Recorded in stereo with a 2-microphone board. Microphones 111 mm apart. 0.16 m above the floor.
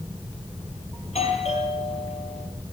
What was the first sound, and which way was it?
A doorbell, 70° left (ahead or behind).